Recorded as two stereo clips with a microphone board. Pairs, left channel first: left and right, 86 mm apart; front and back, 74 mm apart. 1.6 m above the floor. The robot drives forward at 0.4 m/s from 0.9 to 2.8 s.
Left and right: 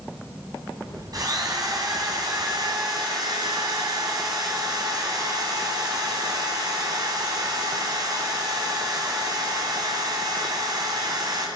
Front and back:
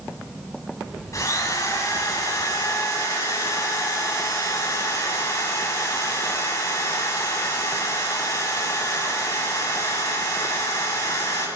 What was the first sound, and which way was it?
A drill, 45° right.